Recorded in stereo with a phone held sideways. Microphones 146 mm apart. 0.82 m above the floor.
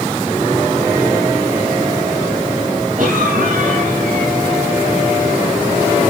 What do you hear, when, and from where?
3.0 s a cough: 70° right (ahead or behind), 4.5 m